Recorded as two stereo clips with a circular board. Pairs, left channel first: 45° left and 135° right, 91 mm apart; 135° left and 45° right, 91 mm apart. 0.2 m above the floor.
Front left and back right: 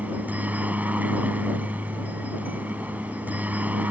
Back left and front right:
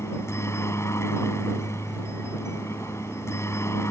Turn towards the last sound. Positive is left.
turn(degrees=165)